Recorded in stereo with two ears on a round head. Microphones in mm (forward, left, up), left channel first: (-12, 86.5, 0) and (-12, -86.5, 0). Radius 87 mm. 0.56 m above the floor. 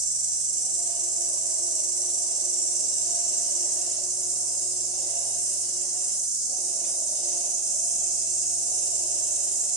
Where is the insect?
5° right (ahead or behind), 1.3 m.